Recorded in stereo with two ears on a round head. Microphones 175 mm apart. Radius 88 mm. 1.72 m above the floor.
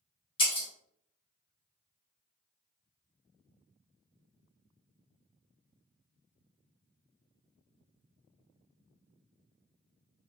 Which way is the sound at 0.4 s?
25° left (ahead or behind).